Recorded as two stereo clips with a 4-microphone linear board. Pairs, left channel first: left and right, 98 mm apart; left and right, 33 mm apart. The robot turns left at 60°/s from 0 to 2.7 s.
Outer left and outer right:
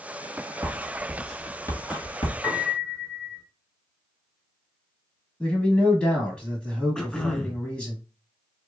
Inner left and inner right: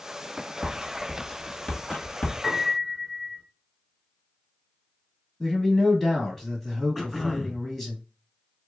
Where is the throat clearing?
5° left (ahead or behind), 0.6 m.